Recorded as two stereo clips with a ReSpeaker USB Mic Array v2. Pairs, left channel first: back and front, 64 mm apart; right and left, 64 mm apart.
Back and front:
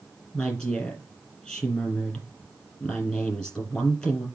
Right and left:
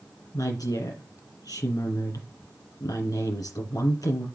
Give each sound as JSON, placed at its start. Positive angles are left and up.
{"t": 0.3, "sound": "a woman speaking", "azimuth_deg": -105, "distance_m": 5.5}